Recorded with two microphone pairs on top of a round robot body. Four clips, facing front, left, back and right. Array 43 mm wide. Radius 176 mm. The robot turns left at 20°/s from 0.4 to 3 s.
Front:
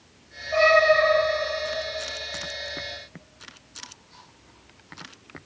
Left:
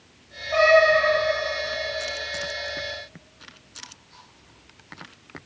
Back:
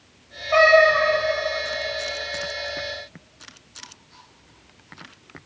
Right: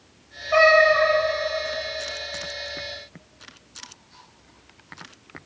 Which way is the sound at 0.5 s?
145° right.